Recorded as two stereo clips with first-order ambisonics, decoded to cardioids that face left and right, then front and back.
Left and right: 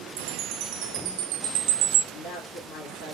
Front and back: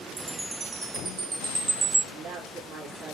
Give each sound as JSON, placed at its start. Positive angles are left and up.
{"t": 0.2, "sound": "a chime", "azimuth_deg": -105, "distance_m": 1.1}
{"t": 2.1, "sound": "a woman speaking", "azimuth_deg": 125, "distance_m": 4.5}